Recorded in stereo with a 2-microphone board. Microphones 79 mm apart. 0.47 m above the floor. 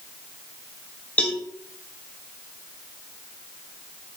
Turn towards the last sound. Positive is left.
turn(degrees=20)  # may be behind; listen again after turning